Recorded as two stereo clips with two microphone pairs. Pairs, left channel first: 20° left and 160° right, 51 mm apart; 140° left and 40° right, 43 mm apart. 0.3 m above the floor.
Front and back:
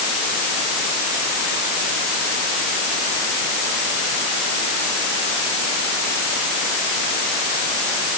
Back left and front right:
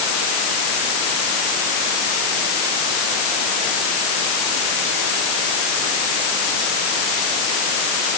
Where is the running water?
I don't hear running water.